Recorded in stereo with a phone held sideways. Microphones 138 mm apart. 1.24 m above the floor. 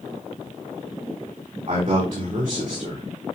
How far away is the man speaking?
About 3.5 m.